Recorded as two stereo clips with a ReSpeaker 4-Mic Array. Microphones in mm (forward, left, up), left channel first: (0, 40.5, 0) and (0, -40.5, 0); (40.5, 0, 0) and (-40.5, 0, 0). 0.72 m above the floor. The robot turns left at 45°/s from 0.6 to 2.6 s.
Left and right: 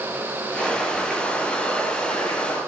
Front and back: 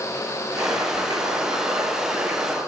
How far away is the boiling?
About 7 m.